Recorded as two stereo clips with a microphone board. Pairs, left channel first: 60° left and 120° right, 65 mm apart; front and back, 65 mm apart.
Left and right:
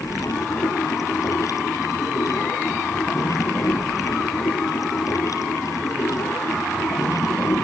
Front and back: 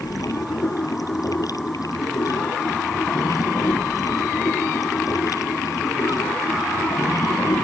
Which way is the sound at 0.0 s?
25° left.